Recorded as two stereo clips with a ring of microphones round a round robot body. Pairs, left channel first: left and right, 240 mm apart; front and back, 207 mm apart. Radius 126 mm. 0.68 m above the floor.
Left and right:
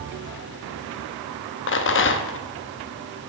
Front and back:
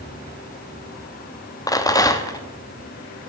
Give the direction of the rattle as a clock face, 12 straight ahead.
10 o'clock.